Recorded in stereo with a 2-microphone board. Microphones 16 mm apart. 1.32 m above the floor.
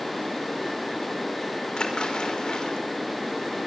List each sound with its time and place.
1.8 s a splash: 60° left (ahead or behind), 5.5 m